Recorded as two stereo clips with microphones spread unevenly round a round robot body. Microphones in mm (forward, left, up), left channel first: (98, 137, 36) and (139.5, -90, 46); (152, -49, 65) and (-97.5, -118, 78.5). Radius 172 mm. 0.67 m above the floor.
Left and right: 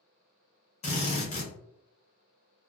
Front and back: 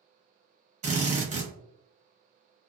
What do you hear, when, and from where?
0.8 s a drill: 145° left, 0.9 m